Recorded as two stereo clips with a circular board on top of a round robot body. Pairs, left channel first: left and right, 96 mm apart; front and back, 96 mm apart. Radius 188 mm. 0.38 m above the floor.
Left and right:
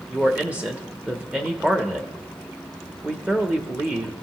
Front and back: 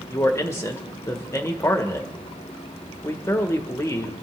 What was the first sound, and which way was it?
A man speaking, 30° right.